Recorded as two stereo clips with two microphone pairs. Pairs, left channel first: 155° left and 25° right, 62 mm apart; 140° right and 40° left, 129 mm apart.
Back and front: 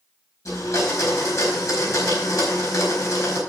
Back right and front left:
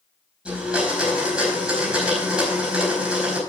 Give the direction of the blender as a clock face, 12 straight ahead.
8 o'clock.